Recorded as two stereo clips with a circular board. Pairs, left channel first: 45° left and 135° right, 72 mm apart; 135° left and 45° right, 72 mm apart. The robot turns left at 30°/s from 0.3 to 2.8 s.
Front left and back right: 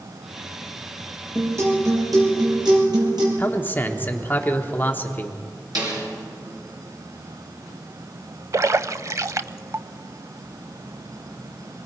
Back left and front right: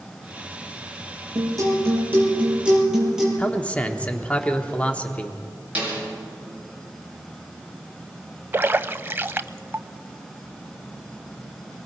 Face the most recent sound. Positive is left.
turn(degrees=-100)